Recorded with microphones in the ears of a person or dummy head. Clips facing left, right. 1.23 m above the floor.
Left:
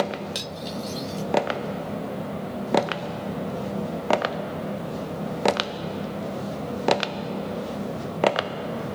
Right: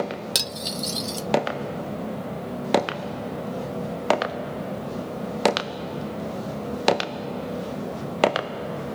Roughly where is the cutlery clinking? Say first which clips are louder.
Even; right.